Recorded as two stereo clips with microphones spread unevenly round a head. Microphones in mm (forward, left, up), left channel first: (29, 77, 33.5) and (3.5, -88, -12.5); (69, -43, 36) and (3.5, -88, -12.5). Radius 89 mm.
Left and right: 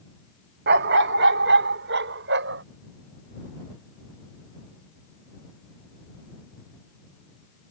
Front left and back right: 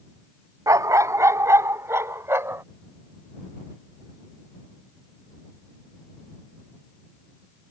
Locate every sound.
0.7 s a dog barking: 75° right